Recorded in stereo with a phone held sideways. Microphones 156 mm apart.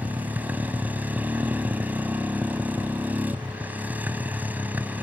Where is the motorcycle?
10° right (ahead or behind).